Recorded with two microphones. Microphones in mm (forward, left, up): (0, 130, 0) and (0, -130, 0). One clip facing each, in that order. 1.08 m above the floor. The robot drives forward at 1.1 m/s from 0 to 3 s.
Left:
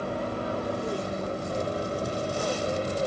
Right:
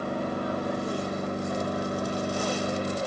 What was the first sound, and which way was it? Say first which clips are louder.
An aircraft: right 1 dB; 30° left (ahead or behind).